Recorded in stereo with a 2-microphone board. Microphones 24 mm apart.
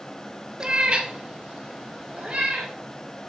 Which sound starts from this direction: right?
A cat meowing, at 0.6 s.